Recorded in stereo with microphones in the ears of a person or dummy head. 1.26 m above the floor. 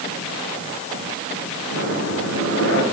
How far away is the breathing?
About 5.5 m.